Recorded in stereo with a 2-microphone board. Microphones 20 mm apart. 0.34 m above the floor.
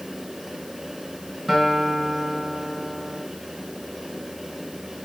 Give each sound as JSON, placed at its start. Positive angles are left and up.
{"t": 1.5, "sound": "a guitar", "side_deg": 10, "distance_m": 2.5}